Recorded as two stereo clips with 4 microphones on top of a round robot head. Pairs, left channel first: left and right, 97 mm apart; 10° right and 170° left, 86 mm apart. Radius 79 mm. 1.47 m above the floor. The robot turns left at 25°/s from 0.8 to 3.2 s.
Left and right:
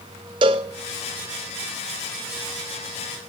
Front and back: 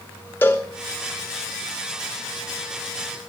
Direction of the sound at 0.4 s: 80° right.